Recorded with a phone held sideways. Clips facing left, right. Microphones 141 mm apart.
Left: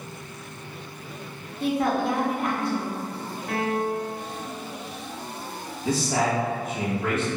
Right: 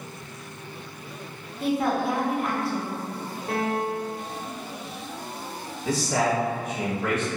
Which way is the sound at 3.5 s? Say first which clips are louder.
Left 1 dB; 30° right (ahead or behind).